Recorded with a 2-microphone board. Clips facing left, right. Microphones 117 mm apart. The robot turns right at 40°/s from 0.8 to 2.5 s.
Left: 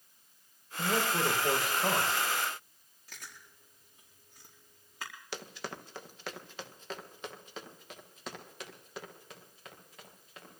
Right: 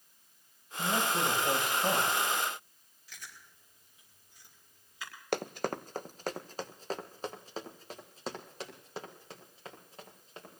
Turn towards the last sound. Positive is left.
turn(degrees=-30)  # may be behind; listen again after turning